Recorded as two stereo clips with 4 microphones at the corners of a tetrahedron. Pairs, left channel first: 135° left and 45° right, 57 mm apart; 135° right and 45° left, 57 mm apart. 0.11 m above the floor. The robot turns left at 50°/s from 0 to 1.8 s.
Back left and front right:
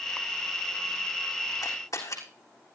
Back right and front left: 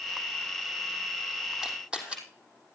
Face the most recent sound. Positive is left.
turn(degrees=120)